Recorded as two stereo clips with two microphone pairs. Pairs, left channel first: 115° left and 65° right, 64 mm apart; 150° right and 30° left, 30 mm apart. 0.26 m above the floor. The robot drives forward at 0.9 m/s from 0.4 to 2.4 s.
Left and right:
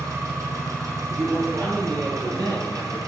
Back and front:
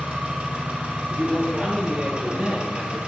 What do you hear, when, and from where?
0.0 s an engine running: 20° right, 5.5 m; by 3.1 s 30° right, 4 m
1.1 s a man speaking: 30° right, 8 m; by 3.0 s 35° right, 7 m